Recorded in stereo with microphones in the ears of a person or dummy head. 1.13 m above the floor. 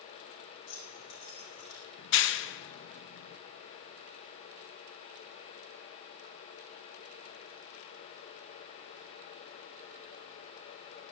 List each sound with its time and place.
0.7 s keys jangling: 90° left, 6 m; by 1.8 s 80° left, 4.5 m
2.0 s a clap: 60° left (ahead or behind), 0.8 m